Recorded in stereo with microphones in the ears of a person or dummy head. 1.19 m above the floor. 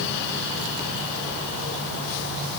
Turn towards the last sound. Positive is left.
No sound to turn to.